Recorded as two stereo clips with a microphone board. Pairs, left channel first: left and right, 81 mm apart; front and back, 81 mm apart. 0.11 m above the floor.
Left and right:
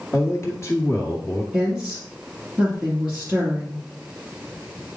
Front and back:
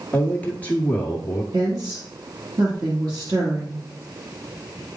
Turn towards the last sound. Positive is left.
turn(degrees=-165)